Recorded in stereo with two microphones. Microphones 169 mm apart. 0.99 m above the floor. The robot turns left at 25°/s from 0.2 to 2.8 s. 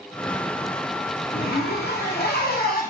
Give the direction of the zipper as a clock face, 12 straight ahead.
8 o'clock.